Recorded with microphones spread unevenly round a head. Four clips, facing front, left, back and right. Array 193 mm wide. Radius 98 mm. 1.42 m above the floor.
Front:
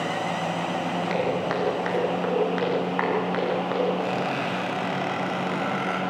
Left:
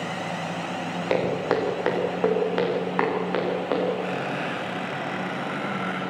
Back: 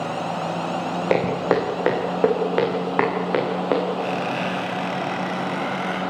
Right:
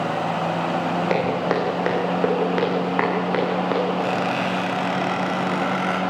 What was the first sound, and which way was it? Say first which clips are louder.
Footsteps: left 1 dB, back 8 dB; 170° right.